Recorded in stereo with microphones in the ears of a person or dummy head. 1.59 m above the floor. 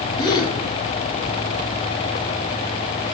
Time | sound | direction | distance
0.2 | a gasp | 25° left (ahead or behind) | 3 m